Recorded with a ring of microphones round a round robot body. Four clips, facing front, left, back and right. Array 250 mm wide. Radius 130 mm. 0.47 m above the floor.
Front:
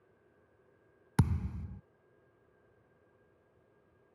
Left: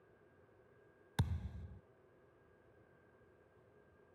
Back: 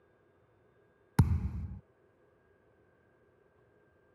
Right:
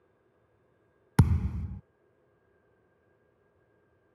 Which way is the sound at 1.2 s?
90° right.